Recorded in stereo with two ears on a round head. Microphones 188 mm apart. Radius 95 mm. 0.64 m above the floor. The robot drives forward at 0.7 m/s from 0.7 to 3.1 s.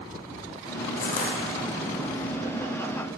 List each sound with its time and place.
1.0 s crushing: 50° left (ahead or behind), 0.6 m; by 1.4 s 35° left (ahead or behind), 0.8 m